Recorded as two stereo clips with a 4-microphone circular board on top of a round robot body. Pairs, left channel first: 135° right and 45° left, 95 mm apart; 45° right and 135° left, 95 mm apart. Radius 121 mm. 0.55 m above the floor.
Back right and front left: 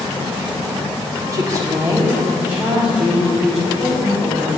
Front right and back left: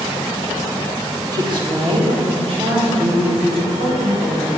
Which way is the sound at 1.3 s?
95° left.